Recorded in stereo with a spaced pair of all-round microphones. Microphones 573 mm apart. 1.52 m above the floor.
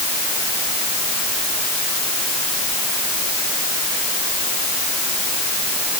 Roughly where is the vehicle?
No vehicle in this recording.